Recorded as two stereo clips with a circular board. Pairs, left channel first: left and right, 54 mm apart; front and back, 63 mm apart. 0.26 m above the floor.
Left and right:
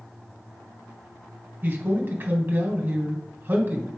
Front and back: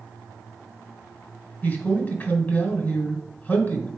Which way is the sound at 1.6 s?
50° right.